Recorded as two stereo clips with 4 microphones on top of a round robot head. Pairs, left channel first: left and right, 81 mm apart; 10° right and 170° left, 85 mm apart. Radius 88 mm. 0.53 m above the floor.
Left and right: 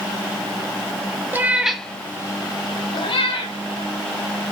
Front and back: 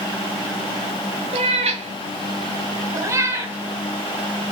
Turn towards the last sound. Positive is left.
turn(degrees=95)